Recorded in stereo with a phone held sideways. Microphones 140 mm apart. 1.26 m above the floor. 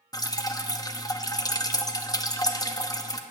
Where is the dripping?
25° left (ahead or behind), 0.7 m.